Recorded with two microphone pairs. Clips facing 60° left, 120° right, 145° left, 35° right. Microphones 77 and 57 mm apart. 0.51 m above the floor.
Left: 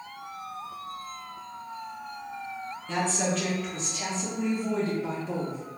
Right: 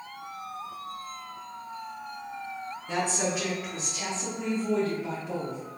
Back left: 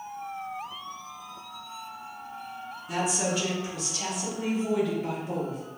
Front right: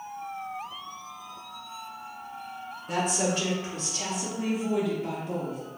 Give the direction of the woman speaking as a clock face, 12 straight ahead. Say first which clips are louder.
Left 1 dB, front right 1 dB; 2 o'clock.